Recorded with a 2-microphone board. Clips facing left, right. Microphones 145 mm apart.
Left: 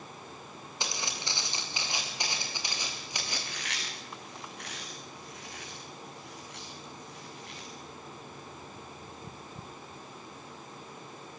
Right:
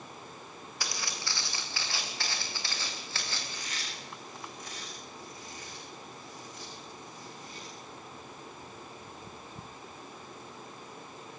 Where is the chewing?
75° left (ahead or behind), 6.5 m.